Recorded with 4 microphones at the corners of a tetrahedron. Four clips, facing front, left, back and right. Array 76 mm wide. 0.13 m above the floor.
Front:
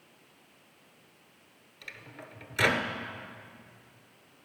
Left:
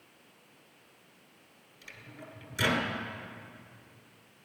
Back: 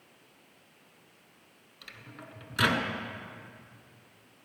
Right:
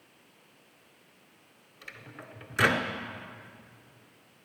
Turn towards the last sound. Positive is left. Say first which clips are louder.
# right 2 dB, front 2 dB
turn(degrees=-100)